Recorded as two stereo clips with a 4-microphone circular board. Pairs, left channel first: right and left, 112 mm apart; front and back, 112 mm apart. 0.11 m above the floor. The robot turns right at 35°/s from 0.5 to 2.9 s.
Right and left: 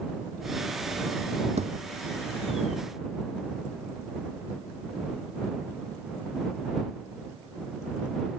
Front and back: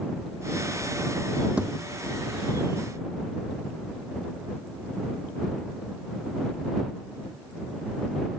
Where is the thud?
100° left; by 1.7 s 105° left.